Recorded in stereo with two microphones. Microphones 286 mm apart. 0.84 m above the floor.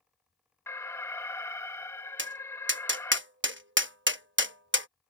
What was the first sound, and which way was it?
An alarm, 10° left (ahead or behind).